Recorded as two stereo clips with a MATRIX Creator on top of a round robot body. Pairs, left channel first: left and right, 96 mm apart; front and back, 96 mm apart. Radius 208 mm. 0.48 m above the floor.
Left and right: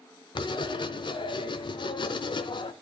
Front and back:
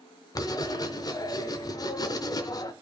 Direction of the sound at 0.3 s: 50° left.